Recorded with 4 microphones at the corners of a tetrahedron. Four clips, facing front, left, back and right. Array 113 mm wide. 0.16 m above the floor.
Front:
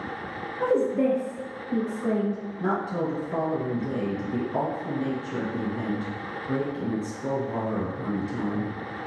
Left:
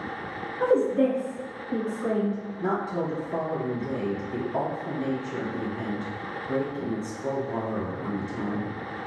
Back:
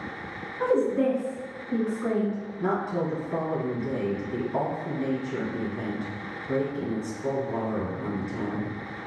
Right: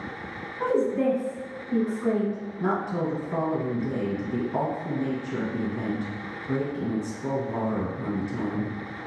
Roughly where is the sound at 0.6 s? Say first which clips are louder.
Left 2 dB, even; behind.